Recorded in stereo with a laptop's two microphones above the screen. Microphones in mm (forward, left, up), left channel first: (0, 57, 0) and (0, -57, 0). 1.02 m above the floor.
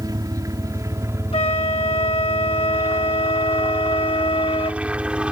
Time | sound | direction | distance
0.0 | a helicopter | 35° right (ahead or behind) | ?
1.3 | a flute | 60° left (ahead or behind) | ?